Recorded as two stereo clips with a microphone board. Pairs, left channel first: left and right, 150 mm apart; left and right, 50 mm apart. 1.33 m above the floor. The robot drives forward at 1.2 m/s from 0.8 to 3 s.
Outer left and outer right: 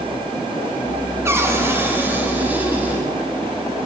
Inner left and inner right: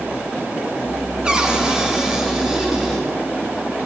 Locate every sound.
1.2 s a cupboard door: 15° right (ahead or behind), 2.5 m; by 3.0 s 10° right (ahead or behind), 4.5 m